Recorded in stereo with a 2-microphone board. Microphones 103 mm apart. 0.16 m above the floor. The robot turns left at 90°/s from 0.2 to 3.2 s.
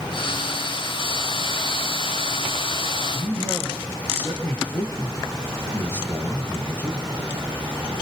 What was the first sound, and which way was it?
A man speaking, 20° left (ahead or behind).